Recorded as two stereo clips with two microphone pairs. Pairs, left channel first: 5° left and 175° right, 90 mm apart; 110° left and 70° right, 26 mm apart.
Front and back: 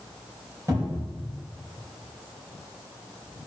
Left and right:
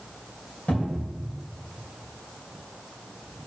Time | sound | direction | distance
0.7 | a cupboard door | 130° left | 3.5 m